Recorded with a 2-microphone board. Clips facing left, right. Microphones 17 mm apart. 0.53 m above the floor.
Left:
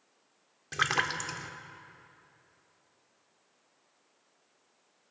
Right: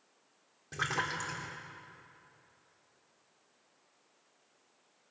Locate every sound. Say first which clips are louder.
0.7 s a splash: left 5 dB; 45° left (ahead or behind), 1.6 m